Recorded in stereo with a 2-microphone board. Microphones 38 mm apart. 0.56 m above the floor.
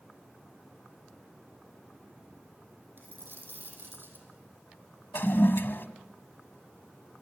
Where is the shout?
No shout in this recording.